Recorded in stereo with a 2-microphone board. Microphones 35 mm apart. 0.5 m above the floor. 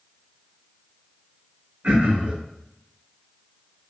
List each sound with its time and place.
1.8 s throat clearing: 60° right (ahead or behind), 1.2 m